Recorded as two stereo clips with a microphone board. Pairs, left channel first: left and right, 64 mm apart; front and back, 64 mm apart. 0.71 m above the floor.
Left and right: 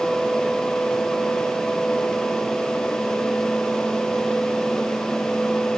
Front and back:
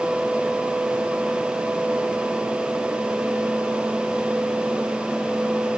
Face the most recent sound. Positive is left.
No sound to turn to.